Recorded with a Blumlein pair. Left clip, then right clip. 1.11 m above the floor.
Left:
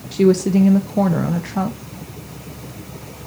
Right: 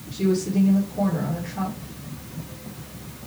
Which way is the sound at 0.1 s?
35° left.